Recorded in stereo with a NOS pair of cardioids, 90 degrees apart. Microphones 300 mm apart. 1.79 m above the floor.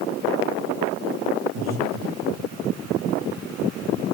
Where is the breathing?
60° right, 2.5 m.